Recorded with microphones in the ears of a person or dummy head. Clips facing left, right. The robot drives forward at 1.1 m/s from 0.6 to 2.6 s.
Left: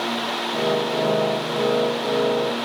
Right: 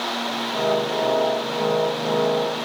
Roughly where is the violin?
I don't hear a violin.